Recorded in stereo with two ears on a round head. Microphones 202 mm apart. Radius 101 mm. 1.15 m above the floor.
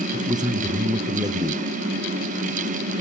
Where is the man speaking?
15° right (ahead or behind), 0.6 m.